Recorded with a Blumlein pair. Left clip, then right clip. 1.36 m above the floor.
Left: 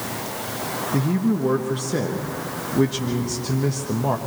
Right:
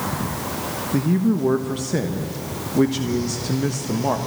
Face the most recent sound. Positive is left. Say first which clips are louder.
# right 3 dB
turn(degrees=-5)